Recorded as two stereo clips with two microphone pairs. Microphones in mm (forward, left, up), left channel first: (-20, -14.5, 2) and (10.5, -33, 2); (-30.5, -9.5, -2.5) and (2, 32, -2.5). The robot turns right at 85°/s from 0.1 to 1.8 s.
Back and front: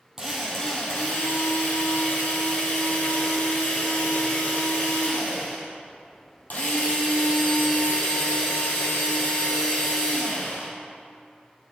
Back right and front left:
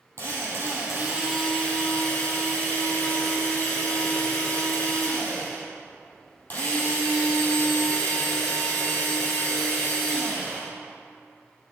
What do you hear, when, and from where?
0.2 s a drill: 40° left, 3.5 m; by 10.7 s 175° left, 3.5 m